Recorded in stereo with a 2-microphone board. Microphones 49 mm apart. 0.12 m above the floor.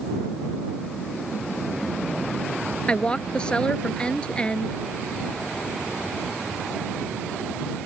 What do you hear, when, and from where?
2.9 s a woman speaking: 20° left (ahead or behind)